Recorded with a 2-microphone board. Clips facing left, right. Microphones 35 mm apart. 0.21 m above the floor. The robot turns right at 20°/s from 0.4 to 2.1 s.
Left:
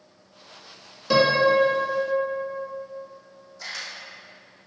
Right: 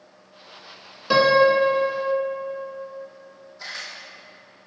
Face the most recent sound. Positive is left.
turn(degrees=-20)  # may be behind; listen again after turning